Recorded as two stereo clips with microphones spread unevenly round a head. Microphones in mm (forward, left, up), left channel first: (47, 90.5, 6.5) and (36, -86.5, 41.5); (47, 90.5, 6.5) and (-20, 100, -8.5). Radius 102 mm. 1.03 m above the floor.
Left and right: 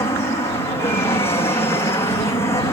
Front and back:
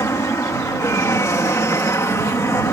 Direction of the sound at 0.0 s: 25° left.